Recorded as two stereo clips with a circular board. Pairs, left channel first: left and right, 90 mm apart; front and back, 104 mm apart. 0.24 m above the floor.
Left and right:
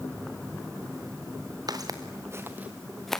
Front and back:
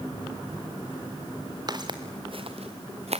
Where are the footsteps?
130° right, 2.5 m; by 3.2 s 170° left, 1.6 m.